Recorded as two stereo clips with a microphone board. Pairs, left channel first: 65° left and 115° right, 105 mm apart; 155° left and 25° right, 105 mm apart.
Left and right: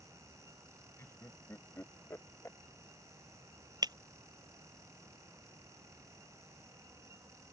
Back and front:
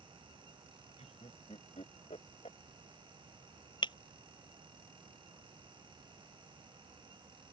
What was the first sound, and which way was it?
Laughter, 135° left.